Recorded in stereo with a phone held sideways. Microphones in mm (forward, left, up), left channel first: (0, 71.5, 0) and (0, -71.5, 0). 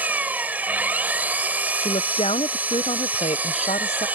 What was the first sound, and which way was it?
An engine running, 10° right (ahead or behind).